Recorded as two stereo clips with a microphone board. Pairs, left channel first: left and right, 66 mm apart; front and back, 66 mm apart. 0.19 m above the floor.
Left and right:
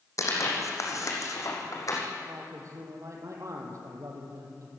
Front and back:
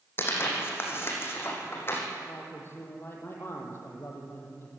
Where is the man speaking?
50° right, 5 m.